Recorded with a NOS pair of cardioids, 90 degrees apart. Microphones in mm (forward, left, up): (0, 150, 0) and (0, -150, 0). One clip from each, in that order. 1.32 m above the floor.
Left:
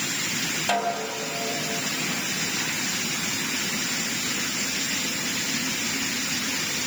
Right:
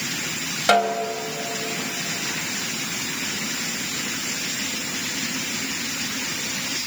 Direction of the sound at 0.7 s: 50° right.